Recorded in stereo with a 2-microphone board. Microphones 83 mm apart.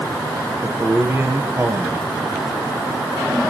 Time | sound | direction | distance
0.6 | a man speaking | 30° right (ahead or behind) | 1.9 m